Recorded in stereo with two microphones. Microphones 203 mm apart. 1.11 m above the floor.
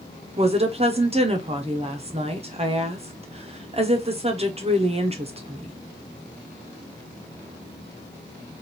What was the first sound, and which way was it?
A woman speaking, 30° right (ahead or behind).